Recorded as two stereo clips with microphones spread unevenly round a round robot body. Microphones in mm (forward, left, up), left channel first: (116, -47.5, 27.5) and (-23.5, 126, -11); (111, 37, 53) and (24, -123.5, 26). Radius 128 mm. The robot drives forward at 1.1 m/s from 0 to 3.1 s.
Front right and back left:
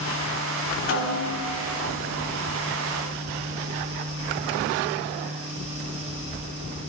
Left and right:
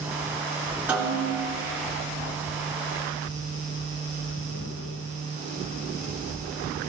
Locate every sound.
0.9 s a snare drum: 40° right, 4.5 m; by 1.5 s 45° right, 4 m